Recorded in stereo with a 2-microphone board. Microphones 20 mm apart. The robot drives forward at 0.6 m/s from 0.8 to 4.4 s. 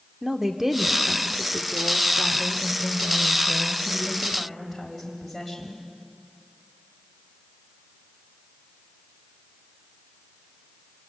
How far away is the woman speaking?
About 1.1 m.